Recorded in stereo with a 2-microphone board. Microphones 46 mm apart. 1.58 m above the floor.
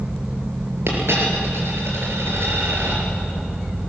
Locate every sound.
0.9 s a dropped coin: 65° right (ahead or behind), 4.5 m